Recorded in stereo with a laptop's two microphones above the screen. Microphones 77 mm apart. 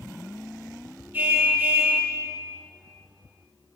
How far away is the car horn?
About 7.5 m.